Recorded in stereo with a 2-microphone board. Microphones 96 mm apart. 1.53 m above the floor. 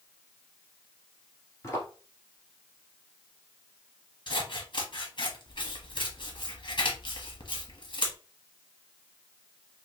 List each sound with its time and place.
1.6 s footsteps: 30° left (ahead or behind), 1.7 m
4.3 s scissors: 55° left (ahead or behind), 1.0 m